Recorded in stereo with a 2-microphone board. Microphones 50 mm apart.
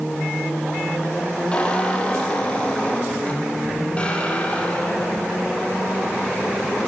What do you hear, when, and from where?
1.5 s a squeak: 25° left (ahead or behind), 6 m